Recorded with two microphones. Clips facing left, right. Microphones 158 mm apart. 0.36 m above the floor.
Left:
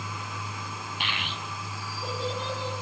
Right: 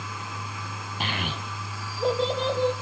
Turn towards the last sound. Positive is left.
turn(degrees=-75)  # may be behind; listen again after turning